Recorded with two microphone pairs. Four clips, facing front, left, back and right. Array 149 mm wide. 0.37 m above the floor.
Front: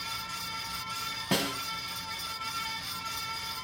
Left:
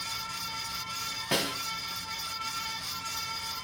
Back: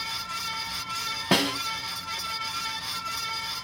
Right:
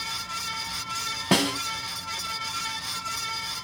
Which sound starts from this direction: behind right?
A snare drum, at 1.3 s.